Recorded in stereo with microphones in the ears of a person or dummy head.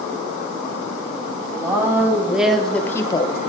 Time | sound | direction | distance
1.5 | a woman speaking | 15° right (ahead or behind) | 2.5 m